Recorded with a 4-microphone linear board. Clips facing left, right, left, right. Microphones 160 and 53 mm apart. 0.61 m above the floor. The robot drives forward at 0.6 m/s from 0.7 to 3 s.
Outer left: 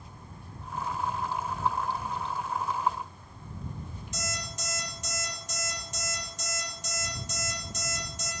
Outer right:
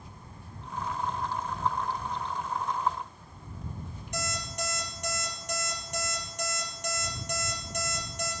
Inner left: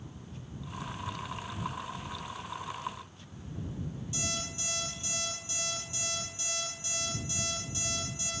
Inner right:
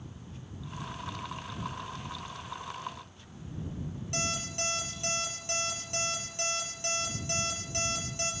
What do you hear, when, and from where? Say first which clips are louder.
4.1 s an alarm clock: outer right 4 dB, inner right 6 dB; 60° right (ahead or behind), 6.5 m